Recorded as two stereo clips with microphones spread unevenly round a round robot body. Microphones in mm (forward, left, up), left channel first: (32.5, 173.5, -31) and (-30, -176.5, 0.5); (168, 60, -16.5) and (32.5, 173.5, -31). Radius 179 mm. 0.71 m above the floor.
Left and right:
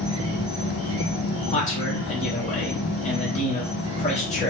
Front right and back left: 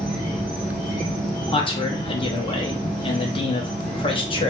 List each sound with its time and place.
0.0 s an insect: 165° right, 1.8 m
1.5 s a man speaking: 20° left, 0.8 m